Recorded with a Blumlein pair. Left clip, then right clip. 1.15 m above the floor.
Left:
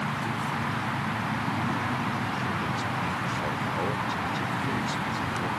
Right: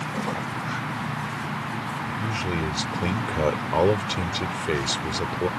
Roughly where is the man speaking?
Ahead right.